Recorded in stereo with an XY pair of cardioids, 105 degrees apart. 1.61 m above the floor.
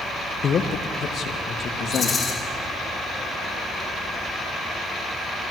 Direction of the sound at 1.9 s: 35° left.